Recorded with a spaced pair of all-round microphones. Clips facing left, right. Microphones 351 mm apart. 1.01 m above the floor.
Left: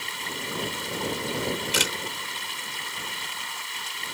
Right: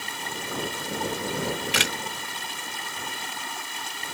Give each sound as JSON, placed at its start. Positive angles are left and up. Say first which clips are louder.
{"t": 0.0, "sound": "running water", "louder": "even", "side_deg": -60}
{"t": 1.3, "sound": "a camera shutter", "louder": "even", "side_deg": -70}